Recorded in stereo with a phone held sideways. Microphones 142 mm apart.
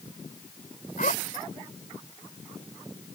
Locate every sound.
1.0 s a zipper: 70° left (ahead or behind)